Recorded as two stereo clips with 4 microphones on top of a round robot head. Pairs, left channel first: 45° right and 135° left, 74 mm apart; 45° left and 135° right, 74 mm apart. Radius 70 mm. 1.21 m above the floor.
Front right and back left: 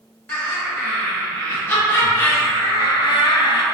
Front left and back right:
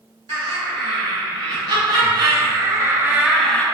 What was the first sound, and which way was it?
Laughter, 115° right.